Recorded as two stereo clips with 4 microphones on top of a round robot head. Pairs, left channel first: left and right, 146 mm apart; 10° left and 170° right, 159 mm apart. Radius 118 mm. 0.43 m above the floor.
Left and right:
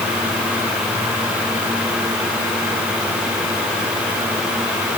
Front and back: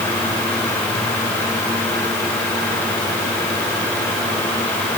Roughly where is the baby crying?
I don't hear a baby crying.